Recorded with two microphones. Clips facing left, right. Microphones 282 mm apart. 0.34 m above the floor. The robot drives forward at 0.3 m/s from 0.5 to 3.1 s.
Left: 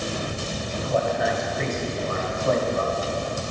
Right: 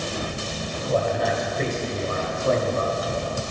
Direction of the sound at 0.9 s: 40° right (ahead or behind).